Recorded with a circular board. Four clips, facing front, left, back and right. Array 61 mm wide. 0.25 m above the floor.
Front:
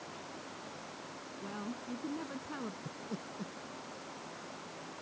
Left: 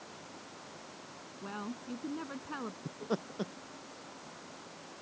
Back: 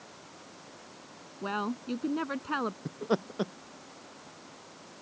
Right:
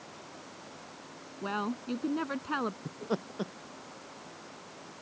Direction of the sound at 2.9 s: 175° right.